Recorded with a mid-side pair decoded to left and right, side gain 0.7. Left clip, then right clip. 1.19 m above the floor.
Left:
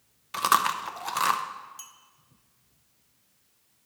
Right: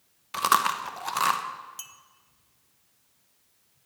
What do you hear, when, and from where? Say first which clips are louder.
0.3 s chewing: even; straight ahead, 0.6 m
1.8 s a clink: right 3 dB; 25° right, 0.6 m